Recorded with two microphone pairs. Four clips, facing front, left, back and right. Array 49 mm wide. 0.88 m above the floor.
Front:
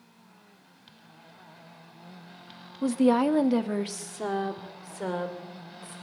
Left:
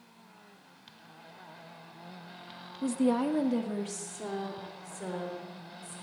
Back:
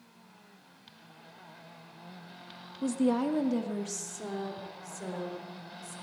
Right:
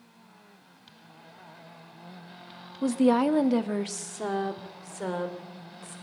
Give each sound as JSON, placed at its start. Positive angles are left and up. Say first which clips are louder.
{"t": 2.8, "sound": "a woman speaking", "louder": "right 5 dB, front 6 dB", "azimuth_deg": -45, "distance_m": 1.1}